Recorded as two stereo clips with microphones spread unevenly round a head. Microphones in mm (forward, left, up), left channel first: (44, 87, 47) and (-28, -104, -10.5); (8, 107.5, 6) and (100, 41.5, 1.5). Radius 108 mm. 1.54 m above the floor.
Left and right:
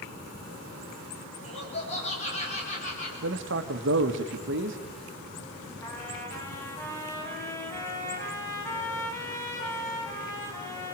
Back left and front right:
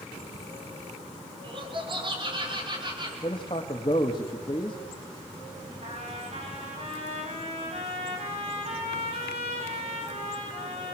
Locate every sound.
1.4 s laughter: 5° left, 6 m; by 3.1 s 15° left, 6.5 m
3.2 s a man speaking: 150° right, 1.5 m
5.8 s a trumpet: 5° right, 6 m